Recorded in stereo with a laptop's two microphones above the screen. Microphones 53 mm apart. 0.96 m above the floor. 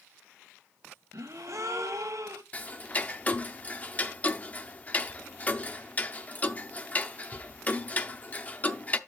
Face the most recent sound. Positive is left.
turn(degrees=30)  # may be behind; listen again after turning